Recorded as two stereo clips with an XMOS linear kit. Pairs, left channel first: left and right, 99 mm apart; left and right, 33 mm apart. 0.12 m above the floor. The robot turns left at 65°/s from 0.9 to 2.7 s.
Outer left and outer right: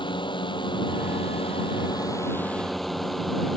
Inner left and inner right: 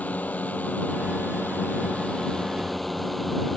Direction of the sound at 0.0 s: 120° left.